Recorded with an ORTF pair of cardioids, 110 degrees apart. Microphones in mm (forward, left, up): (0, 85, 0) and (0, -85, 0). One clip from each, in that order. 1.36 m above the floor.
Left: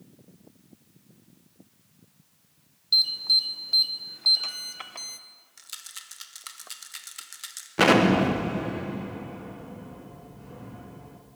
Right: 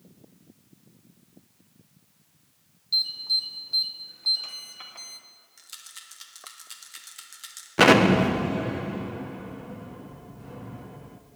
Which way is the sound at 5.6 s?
20° left.